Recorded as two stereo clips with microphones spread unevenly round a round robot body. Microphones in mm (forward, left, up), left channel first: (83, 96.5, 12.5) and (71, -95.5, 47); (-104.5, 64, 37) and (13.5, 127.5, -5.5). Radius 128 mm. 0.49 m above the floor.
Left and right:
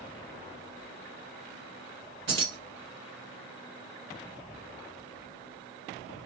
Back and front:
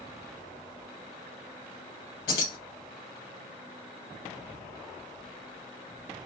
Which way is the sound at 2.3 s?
135° right.